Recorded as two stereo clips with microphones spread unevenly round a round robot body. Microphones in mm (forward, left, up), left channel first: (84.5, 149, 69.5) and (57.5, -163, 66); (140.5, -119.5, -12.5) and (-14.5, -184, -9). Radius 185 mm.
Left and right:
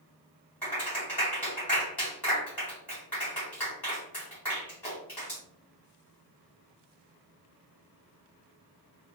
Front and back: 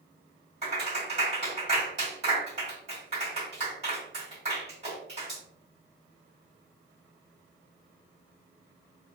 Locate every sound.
0.6 s a clap: 170° left, 1.9 m